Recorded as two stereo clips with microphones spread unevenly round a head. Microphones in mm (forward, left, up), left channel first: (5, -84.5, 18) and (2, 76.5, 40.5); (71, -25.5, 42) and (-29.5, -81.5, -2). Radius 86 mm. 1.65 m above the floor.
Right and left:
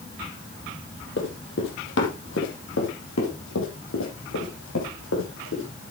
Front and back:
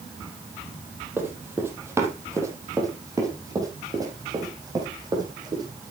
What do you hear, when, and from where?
1.2 s running footsteps: 70° right, 3.5 m; by 5.7 s 90° right, 6 m